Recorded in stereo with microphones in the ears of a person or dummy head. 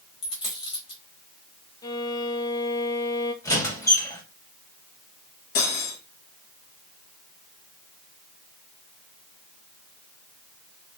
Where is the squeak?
20° left (ahead or behind), 1.0 m.